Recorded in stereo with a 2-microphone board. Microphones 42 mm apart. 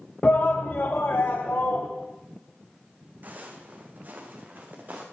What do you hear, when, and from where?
0.2 s a shout: 40° left (ahead or behind), 0.6 m; by 1.9 s 70° left (ahead or behind), 1.3 m
3.2 s footsteps: 45° right (ahead or behind), 2 m; by 5.0 s 50° right (ahead or behind), 3 m